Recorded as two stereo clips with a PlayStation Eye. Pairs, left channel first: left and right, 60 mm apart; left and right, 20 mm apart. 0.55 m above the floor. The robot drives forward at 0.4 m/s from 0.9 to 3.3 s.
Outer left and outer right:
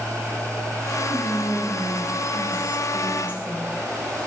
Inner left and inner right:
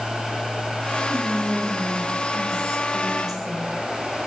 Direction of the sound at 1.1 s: 40° right (ahead or behind).